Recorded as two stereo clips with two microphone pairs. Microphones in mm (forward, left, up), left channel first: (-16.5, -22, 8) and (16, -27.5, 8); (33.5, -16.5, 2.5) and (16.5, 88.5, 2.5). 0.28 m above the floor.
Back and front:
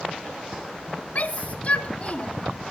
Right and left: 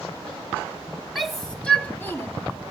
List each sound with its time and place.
1.1 s a shout: 175° right, 1.9 m; by 2.3 s 145° right, 2.0 m